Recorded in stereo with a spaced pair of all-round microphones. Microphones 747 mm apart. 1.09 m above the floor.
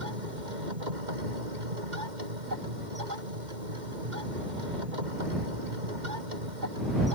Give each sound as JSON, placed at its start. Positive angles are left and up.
{"t": 0.0, "sound": "a machine running", "side_deg": -75}